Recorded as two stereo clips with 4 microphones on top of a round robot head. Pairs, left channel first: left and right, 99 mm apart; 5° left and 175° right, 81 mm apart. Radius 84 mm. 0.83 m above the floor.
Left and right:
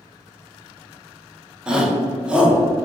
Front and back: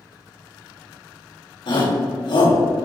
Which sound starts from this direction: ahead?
A shout, at 1.7 s.